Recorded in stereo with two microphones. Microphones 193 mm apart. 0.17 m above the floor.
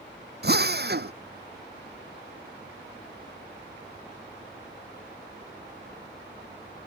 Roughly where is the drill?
Right.